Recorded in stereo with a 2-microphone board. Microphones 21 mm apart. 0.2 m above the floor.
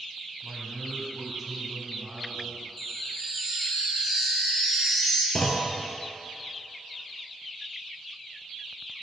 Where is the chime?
5° left (ahead or behind), 1.4 m.